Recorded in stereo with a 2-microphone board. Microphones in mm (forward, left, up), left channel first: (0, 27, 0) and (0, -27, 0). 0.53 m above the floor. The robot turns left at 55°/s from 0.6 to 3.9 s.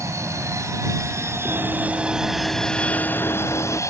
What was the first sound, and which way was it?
An aircraft, 80° right.